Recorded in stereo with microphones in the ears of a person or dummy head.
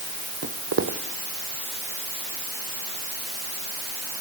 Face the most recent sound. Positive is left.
turn(degrees=-45)  # may be behind; listen again after turning